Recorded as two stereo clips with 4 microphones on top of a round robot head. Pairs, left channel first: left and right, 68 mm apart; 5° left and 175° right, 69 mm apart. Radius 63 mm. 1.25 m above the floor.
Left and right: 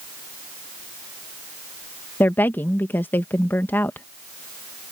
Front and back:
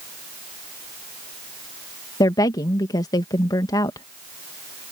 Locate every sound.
2.2 s a woman speaking: 30° left